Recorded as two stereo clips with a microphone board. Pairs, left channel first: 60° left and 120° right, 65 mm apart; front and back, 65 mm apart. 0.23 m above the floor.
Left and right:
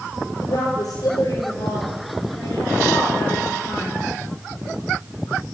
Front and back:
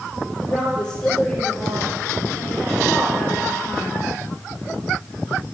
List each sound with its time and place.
0.4 s a woman speaking: 80° left, 6.5 m